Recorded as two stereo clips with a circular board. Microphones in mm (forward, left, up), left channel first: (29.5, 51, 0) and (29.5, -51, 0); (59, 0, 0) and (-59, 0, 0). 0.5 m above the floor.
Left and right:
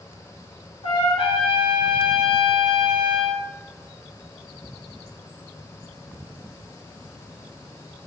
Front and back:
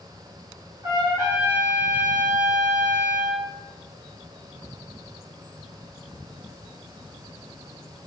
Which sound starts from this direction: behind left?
A trumpet, at 0.8 s.